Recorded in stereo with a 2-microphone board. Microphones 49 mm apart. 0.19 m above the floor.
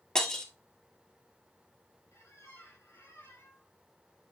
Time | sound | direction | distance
0.1 | breaking glass | 15° left (ahead or behind) | 1.4 m
2.1 | a squeak | 60° left (ahead or behind) | 2.5 m